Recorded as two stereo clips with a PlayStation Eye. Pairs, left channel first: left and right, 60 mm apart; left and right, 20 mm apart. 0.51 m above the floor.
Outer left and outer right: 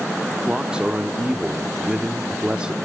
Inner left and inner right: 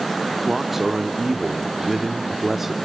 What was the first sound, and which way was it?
A man speaking, 15° right (ahead or behind).